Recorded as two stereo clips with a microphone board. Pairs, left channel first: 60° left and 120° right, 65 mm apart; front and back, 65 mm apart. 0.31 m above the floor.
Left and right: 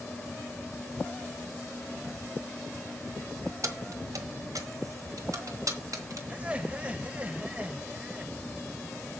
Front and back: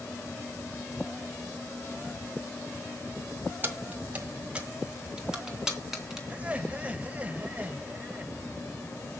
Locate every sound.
3.6 s keys jangling: 125° right, 1.7 m; by 6.2 s 95° right, 3 m
6.3 s laughter: 155° right, 1.4 m